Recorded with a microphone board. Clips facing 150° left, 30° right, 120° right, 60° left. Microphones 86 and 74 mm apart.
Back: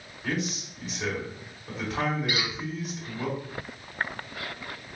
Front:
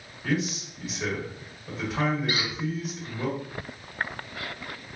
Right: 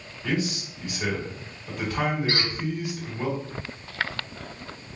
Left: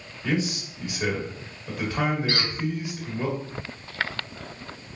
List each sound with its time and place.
0.2 s a man speaking: 60° left, 1.6 m
2.3 s a squeak: 70° right, 1.1 m